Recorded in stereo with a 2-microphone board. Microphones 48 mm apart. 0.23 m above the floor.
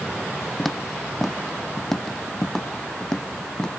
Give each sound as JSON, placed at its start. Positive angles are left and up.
{"t": 0.6, "sound": "footsteps", "side_deg": 0}